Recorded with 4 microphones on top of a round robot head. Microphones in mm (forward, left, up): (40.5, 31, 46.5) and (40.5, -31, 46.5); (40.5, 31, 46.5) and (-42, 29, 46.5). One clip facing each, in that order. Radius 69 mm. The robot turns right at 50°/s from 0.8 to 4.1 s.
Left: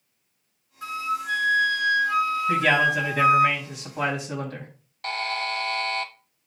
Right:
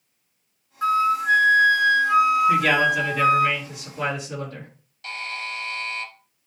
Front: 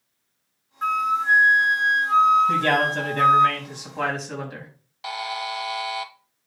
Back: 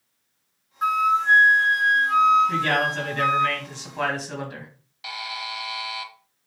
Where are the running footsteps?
No running footsteps in this recording.